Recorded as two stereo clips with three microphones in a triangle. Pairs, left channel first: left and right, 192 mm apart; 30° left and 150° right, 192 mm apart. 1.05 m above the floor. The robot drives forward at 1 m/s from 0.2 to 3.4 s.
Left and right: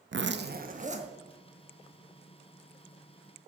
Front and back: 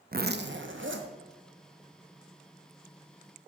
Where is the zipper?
110° right, 0.7 m; by 1.1 s 150° right, 1.3 m.